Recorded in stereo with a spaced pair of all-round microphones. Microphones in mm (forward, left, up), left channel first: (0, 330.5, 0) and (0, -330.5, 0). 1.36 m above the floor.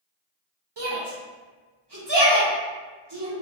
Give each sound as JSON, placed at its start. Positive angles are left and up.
{"t": 0.8, "sound": "a shout", "side_deg": -40, "distance_m": 1.0}